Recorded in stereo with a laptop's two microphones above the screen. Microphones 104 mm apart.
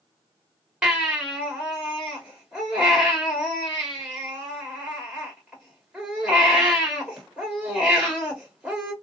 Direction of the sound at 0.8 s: 10° right (ahead or behind).